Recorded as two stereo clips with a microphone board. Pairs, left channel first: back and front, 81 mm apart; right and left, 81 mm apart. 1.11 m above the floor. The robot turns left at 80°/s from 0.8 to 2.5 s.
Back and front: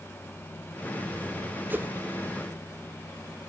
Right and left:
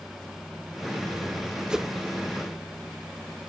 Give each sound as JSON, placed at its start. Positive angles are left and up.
{"t": 1.7, "sound": "a whoosh", "azimuth_deg": 20, "distance_m": 0.5}